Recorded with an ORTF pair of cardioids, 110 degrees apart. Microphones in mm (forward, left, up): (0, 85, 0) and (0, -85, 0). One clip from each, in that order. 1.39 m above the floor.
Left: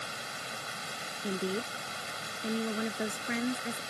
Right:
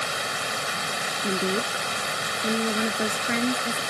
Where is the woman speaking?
40° right.